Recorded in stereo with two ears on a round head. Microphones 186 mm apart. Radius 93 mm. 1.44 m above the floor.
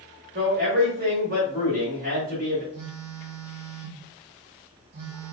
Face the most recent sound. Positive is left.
turn(degrees=-80)